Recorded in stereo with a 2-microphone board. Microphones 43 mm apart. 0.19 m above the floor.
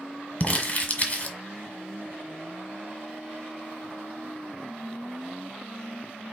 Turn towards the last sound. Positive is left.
turn(degrees=30)  # may be behind; listen again after turning